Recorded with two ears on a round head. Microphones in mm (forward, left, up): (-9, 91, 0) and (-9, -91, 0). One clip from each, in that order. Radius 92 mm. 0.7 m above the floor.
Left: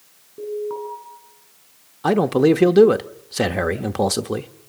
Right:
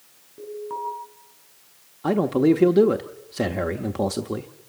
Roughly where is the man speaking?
Left.